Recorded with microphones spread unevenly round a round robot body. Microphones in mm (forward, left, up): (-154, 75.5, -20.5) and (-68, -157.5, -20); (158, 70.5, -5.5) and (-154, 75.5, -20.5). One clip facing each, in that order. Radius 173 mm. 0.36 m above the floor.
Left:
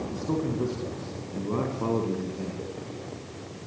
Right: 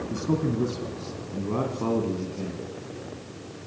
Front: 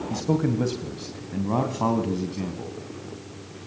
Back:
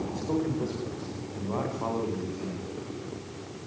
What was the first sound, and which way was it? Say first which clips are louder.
A man speaking: right 4 dB, front 7 dB; 10° right.